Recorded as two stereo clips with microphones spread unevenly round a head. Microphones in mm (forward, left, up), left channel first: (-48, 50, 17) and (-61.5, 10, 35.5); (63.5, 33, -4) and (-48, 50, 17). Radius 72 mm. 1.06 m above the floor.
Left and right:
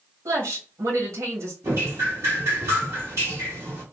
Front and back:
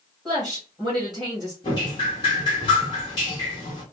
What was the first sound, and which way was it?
A woman speaking, 95° right.